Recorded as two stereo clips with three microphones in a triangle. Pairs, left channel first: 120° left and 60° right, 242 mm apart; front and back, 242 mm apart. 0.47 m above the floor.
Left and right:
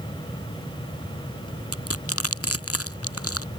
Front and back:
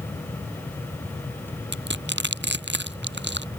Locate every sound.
1.7 s crushing: 140° left